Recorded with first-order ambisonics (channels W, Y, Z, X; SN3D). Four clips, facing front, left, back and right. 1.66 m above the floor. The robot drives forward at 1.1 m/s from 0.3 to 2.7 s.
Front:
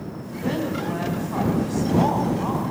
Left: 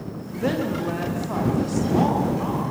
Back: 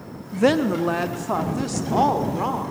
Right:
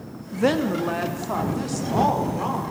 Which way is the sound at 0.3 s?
155° right.